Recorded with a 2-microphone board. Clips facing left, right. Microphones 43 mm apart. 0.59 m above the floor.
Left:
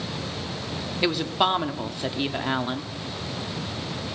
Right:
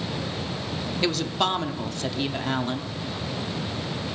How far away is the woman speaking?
About 0.9 m.